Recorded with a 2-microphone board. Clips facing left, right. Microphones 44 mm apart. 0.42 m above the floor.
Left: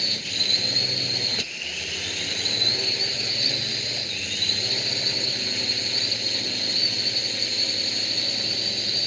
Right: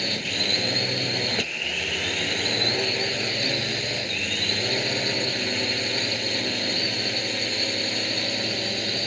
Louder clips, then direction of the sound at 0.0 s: Right 2 dB; 30° right (ahead or behind).